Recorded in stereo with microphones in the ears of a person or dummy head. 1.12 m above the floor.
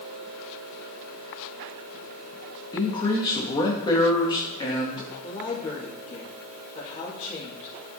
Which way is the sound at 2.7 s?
25° left (ahead or behind).